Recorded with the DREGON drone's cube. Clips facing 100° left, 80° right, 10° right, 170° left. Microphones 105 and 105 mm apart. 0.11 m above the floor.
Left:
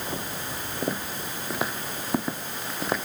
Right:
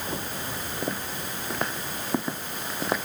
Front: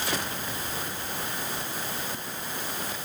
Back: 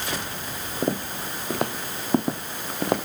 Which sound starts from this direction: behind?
Footsteps, at 0.8 s.